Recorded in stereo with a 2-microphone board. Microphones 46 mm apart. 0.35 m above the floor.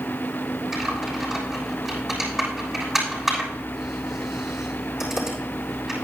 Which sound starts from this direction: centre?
Typing on a keyboard, at 0.7 s.